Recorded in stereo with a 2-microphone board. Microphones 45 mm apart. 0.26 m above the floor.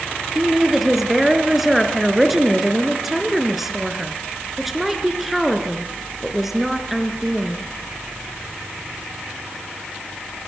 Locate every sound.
0.3 s a woman speaking: 5° right (ahead or behind), 3 m